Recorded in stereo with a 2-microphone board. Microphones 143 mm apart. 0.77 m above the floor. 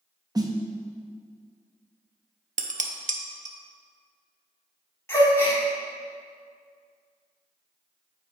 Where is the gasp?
20° left (ahead or behind), 1.6 m.